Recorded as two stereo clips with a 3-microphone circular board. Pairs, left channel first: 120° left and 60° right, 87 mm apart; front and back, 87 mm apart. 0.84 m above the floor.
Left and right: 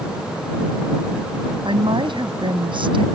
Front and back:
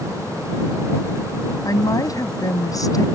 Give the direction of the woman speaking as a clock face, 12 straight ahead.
2 o'clock.